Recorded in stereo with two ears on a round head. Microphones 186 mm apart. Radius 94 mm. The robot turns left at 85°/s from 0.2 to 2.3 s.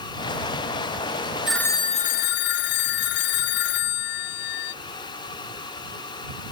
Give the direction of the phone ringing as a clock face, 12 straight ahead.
6 o'clock.